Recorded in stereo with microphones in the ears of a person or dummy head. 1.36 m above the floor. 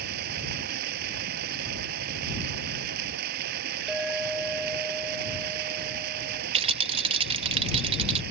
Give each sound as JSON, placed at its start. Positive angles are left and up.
{"t": 0.0, "sound": "running water", "side_deg": -60}
{"t": 3.9, "sound": "a clink", "side_deg": -5}
{"t": 6.5, "sound": "a rattle", "side_deg": -30}